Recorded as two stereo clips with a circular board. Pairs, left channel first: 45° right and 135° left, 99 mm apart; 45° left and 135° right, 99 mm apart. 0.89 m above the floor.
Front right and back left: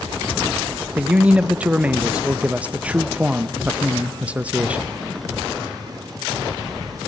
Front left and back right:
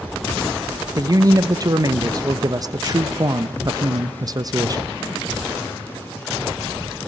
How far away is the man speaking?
About 0.8 m.